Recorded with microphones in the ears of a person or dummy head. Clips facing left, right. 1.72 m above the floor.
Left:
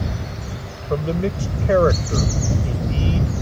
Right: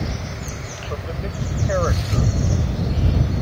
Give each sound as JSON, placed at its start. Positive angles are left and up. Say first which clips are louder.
{"t": 0.9, "sound": "a man speaking", "louder": "left 9 dB", "side_deg": 45}